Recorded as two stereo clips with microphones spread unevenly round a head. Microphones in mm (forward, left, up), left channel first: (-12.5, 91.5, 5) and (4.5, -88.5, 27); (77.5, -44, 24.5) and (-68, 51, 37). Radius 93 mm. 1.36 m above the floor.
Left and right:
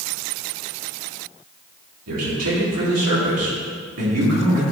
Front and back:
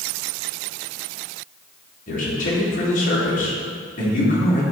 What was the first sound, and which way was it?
A man speaking, 80° right.